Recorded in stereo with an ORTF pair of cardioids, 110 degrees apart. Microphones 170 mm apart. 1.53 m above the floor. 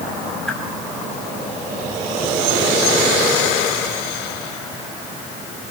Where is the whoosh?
5° left, 7 m.